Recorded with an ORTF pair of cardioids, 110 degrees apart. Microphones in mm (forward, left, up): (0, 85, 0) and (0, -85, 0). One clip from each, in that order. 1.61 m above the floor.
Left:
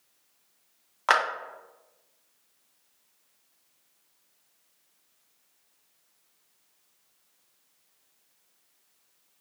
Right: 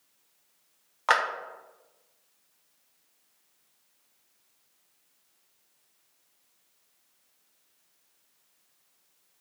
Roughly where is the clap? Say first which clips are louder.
Left 1 dB; ahead.